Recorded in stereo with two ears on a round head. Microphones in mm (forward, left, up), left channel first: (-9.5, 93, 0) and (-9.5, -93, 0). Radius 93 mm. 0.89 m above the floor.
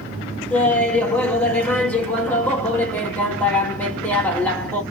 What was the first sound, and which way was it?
Laughter, 10° left (ahead or behind).